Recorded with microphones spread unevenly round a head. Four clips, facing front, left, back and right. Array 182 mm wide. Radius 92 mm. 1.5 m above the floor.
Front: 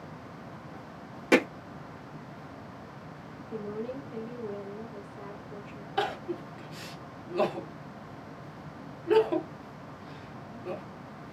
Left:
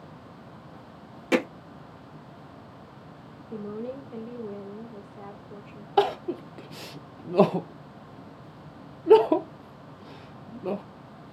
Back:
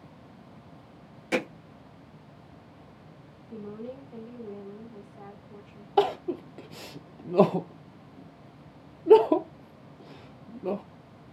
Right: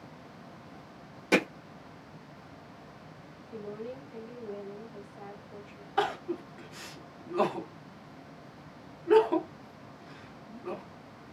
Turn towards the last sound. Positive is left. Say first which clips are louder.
# left 6 dB, back 7 dB
turn(degrees=130)